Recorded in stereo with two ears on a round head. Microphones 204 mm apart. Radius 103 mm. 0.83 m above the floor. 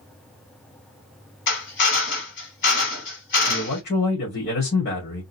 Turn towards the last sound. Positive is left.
turn(degrees=50)  # may be behind; listen again after turning